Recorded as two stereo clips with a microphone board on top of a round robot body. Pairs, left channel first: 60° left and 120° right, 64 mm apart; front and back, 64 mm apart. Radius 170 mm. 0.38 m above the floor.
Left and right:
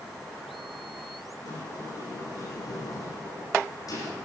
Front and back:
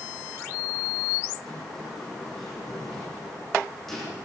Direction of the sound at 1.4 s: 85° left.